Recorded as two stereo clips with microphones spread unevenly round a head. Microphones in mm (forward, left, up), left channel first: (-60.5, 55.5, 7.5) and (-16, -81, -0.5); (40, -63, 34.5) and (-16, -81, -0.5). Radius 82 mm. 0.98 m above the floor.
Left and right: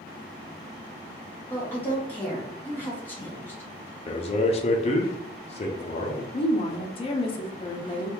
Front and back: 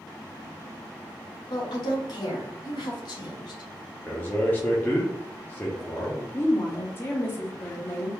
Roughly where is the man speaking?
Behind left.